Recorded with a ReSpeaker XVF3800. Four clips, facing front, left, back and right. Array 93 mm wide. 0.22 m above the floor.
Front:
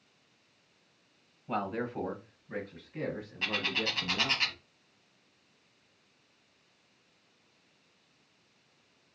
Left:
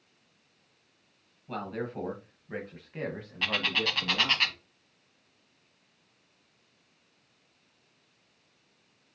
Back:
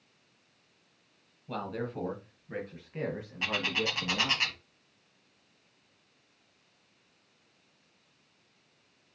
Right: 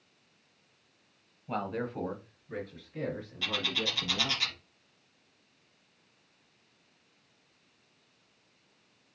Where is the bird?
100° left, 0.9 m.